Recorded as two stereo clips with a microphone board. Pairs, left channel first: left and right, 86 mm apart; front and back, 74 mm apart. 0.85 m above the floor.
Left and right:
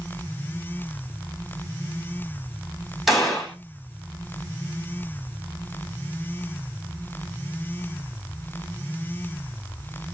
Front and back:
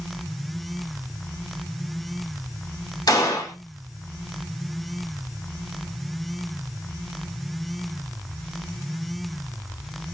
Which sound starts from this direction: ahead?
A gunshot, at 3.1 s.